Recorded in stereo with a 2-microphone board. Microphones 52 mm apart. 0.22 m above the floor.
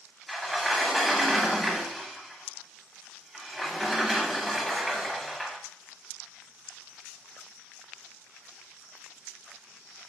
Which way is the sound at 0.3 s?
Centre (ahead or behind).